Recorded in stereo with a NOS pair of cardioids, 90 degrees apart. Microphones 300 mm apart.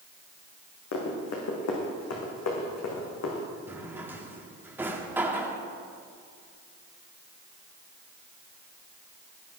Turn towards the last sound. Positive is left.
turn(degrees=-5)